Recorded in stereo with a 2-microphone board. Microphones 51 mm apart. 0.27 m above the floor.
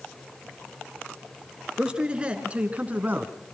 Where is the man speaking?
15° right (ahead or behind), 3.5 m; by 3.3 s 40° right (ahead or behind), 2 m.